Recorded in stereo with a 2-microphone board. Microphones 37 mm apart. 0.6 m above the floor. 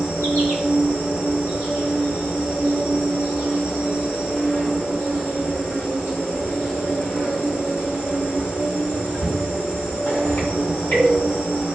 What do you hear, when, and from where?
0.0 s an insect: 80° left, 1.9 m